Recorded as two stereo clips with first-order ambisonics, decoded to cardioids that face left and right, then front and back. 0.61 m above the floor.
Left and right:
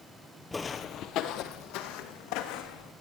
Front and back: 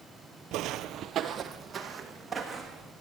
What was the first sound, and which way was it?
Footsteps, 170° left.